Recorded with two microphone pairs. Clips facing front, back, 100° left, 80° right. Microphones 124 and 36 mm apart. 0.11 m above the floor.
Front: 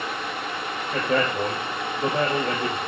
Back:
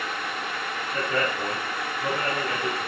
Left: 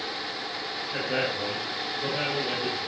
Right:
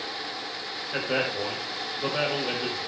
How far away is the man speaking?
About 3.5 m.